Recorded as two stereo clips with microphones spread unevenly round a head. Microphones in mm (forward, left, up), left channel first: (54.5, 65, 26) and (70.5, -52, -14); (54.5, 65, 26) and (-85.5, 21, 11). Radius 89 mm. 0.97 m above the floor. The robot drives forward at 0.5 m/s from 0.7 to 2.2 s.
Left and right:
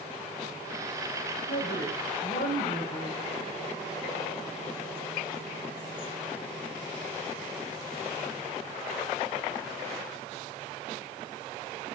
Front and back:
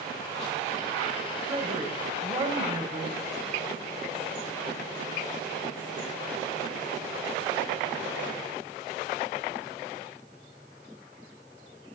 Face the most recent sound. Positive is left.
turn(degrees=135)